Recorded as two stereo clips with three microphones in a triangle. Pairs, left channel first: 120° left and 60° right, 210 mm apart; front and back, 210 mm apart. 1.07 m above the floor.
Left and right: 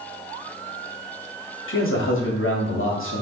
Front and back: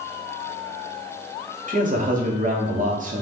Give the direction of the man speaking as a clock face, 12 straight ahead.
8 o'clock.